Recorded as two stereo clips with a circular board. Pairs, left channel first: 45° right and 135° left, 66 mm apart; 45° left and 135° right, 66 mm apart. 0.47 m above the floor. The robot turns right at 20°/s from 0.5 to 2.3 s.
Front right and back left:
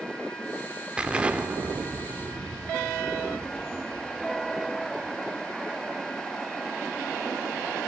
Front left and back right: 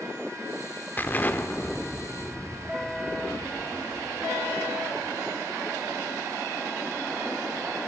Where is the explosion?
75° left, 1.3 m; by 5.2 s 100° left, 1.3 m.